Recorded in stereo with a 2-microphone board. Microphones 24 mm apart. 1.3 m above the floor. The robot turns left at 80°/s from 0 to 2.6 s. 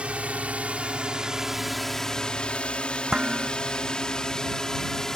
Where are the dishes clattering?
20° right (ahead or behind).